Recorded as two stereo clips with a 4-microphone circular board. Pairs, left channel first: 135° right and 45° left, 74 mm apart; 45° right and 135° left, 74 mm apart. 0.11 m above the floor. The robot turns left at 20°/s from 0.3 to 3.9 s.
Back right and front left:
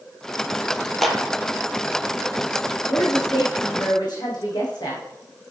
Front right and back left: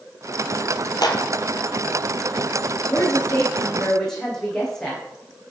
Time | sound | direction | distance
1.0 | a clap | 45° right | 2.5 m
2.9 | a woman speaking | 105° right | 7.5 m